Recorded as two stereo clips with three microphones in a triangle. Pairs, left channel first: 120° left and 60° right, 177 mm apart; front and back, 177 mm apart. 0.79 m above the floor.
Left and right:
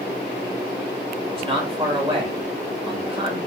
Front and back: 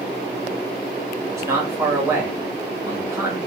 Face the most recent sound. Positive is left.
turn(degrees=-110)